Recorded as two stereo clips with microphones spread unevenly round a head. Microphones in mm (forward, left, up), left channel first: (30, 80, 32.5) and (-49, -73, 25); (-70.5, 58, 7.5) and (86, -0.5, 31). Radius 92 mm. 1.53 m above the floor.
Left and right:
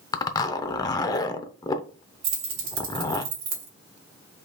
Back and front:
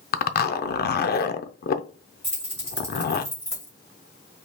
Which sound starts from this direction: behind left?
A zipper, at 0.1 s.